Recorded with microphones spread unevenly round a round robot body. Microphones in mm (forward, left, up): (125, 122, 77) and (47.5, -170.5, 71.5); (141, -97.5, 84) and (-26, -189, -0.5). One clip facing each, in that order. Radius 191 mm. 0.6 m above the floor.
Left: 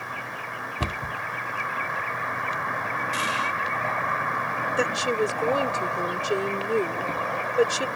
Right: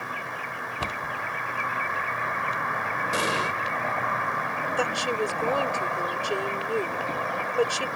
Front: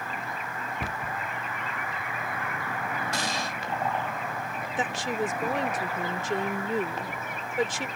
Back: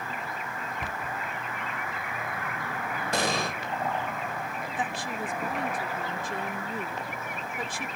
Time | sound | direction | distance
0.8 | a cupboard door | 100° left | ?
3.1 | an explosion | 150° right | ?
4.8 | a woman speaking | 10° left | ?